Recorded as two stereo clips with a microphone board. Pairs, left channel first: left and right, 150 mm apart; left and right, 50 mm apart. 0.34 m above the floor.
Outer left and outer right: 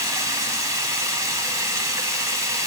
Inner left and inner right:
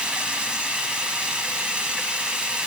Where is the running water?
20° right (ahead or behind), 1.2 m.